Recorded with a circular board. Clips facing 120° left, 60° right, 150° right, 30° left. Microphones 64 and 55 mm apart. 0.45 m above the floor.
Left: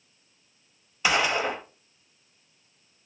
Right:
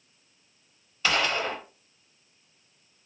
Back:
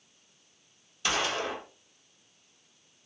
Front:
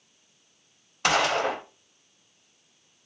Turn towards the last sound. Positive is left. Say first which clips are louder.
# left 2 dB, front 7 dB
turn(degrees=50)